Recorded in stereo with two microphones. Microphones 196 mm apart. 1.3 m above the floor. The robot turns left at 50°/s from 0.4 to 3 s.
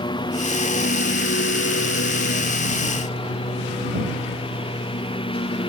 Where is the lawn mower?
155° left; by 5.7 s 25° left.